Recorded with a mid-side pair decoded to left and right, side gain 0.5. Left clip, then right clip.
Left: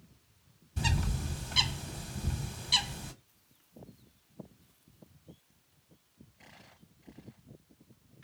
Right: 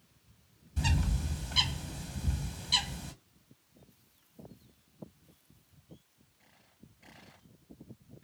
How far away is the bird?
About 1.3 m.